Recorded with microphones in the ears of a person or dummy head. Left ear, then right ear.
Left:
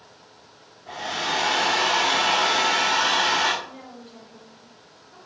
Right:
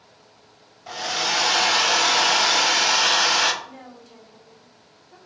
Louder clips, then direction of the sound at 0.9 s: Right 3 dB; 60° right (ahead or behind).